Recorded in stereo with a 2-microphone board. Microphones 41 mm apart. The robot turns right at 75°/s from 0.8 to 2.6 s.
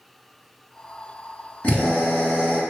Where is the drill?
25° left (ahead or behind), 1.1 m; by 2.6 s 15° left (ahead or behind), 1.1 m.